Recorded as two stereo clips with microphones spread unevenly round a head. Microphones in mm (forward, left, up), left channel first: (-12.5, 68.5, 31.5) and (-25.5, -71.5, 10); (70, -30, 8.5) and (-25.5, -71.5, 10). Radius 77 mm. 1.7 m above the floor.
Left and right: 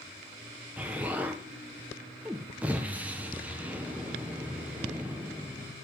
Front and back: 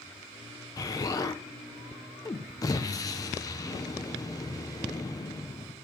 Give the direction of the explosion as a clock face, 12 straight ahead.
12 o'clock.